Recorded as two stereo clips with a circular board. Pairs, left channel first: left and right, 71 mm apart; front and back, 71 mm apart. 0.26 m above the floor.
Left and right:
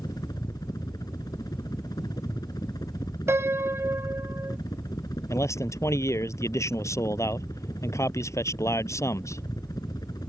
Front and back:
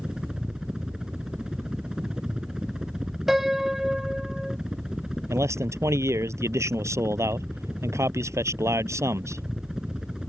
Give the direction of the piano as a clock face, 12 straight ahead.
3 o'clock.